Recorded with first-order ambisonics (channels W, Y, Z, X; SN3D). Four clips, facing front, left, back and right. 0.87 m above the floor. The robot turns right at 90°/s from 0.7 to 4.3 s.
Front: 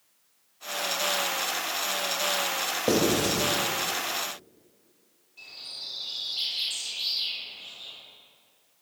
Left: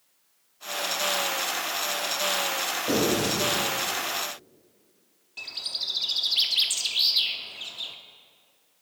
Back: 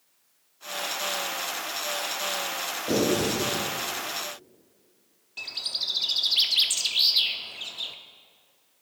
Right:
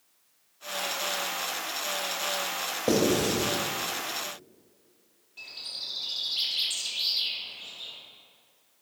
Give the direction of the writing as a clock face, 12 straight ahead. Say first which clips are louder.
Right 1 dB, even; 1 o'clock.